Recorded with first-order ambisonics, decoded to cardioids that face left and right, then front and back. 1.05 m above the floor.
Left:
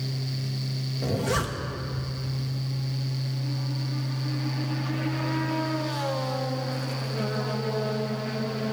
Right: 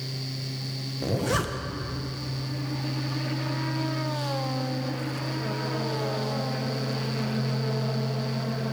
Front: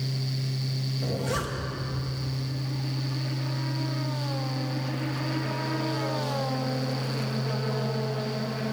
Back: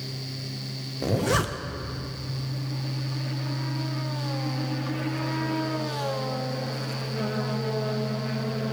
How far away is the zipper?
About 0.8 m.